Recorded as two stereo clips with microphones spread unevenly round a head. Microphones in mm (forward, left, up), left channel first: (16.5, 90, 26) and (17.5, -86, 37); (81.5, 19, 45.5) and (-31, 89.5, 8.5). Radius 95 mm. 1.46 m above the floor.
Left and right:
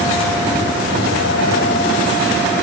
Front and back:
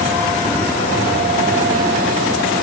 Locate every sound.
Only background noise.